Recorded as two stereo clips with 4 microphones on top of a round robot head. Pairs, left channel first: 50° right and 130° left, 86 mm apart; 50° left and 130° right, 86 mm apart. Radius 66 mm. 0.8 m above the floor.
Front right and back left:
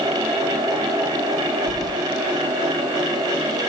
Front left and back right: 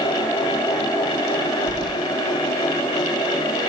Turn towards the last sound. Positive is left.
turn(degrees=-95)